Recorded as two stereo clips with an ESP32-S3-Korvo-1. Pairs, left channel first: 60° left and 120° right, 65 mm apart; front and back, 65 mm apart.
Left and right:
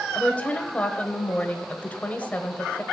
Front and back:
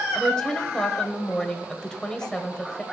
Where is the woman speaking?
60° left, 1.1 m.